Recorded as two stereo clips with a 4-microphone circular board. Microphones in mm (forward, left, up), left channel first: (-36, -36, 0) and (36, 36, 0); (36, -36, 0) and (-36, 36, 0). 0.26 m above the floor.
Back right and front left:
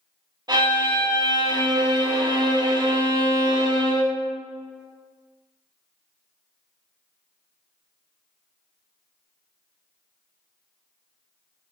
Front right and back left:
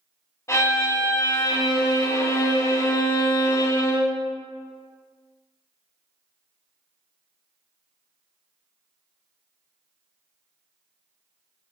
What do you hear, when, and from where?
0.5 s a violin: 10° left, 0.7 m